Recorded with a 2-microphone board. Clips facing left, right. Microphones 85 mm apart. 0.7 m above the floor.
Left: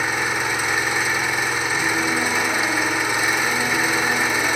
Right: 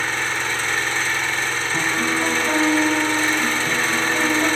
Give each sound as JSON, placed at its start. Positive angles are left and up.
{"t": 0.0, "sound": "an engine running", "side_deg": 10, "distance_m": 1.4}
{"t": 1.7, "sound": "a piano", "side_deg": -50, "distance_m": 7.5}